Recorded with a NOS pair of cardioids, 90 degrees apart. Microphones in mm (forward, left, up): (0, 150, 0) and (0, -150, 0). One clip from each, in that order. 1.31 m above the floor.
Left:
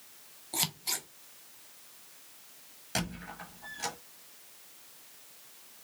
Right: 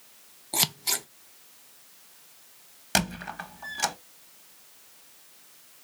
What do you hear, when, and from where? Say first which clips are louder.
0.5 s scissors: right 6 dB; 30° right, 0.6 m
3.0 s a squeak: right 9 dB; 65° right, 1.2 m